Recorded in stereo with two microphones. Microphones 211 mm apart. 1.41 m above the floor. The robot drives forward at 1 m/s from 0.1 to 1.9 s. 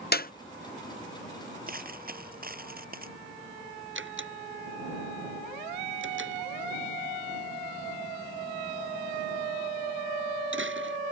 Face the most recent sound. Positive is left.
turn(degrees=-75)  # may be behind; listen again after turning